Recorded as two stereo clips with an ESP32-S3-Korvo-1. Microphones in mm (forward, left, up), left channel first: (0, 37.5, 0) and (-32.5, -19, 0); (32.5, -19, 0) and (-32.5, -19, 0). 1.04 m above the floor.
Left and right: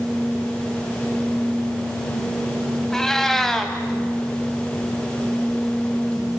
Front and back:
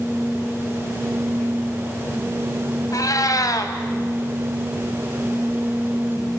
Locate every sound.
2.9 s a cat meowing: 20° right, 2 m